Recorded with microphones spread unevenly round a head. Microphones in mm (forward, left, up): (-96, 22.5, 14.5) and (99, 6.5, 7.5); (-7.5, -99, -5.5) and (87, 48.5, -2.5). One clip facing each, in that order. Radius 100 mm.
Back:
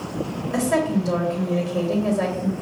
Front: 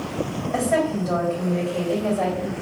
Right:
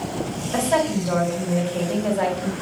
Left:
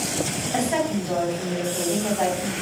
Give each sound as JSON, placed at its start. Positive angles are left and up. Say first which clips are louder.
{"t": 0.5, "sound": "a woman speaking", "louder": "back 1 dB, right 3 dB", "azimuth_deg": -140, "distance_m": 2.0}